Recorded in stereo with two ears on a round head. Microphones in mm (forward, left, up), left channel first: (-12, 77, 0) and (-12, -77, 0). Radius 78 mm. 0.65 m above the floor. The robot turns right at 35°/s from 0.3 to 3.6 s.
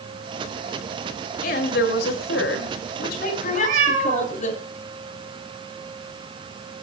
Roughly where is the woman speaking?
Ahead left.